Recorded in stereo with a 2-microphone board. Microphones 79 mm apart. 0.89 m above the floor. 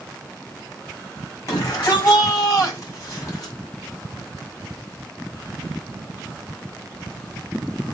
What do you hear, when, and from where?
1.5 s a shout: 40° left (ahead or behind), 6 m